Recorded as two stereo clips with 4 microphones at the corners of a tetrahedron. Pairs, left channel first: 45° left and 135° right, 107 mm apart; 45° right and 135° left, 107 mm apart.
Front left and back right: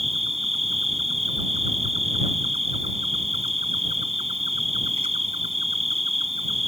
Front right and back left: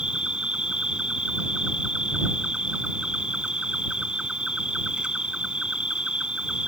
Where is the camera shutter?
I don't hear a camera shutter.